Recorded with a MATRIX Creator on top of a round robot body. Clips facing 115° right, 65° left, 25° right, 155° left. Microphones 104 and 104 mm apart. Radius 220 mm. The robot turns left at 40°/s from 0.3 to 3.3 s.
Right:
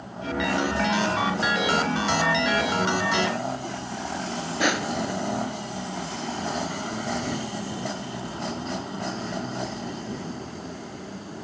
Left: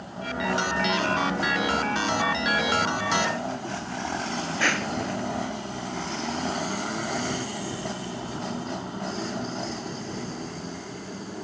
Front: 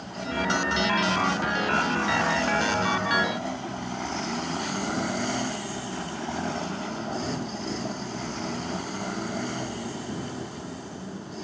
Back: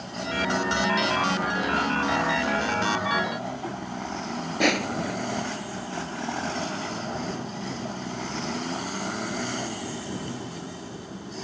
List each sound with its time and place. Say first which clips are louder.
4.6 s crushing: right 4 dB, back 4 dB; 175° left